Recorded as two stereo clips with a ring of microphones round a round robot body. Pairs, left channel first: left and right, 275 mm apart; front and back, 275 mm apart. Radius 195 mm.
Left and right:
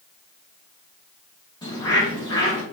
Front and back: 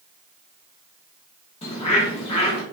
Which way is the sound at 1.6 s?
35° left.